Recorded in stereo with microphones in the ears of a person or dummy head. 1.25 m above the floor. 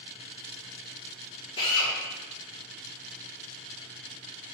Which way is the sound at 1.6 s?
25° left (ahead or behind).